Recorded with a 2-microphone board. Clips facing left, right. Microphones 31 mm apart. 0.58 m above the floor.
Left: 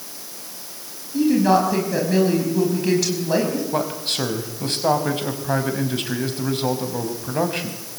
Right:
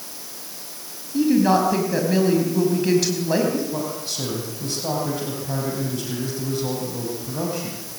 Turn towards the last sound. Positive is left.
turn(degrees=50)  # may be behind; listen again after turning